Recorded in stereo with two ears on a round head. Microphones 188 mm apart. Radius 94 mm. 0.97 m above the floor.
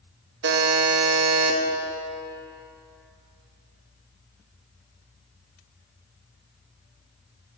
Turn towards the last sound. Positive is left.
turn(degrees=-60)  # may be behind; listen again after turning